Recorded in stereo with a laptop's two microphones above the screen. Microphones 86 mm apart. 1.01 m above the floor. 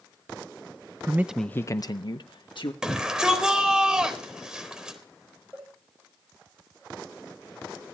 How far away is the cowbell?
About 9 m.